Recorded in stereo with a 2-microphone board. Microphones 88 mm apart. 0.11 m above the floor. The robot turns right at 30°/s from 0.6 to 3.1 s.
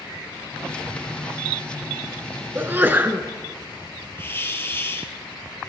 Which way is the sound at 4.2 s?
25° left (ahead or behind).